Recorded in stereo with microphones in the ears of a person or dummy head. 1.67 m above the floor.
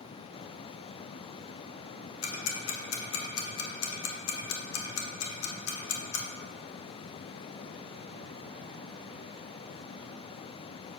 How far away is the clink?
I don't hear a clink.